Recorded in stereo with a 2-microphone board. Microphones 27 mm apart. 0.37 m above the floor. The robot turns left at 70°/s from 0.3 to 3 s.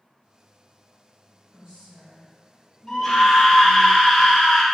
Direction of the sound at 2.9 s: 15° left (ahead or behind).